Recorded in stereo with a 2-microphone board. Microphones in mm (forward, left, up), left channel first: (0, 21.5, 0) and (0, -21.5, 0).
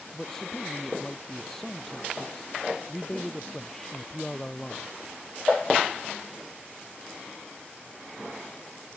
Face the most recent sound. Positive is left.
turn(degrees=15)  # may be behind; listen again after turning